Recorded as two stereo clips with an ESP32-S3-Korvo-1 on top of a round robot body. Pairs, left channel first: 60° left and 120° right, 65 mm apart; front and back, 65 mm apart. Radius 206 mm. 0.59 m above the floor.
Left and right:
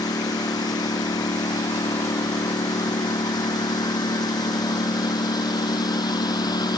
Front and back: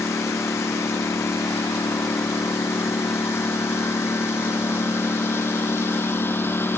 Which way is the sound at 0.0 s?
50° left.